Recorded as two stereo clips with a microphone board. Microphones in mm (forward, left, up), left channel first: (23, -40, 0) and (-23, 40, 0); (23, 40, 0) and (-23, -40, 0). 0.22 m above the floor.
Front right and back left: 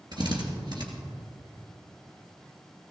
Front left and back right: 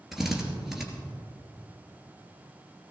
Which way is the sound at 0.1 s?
155° left.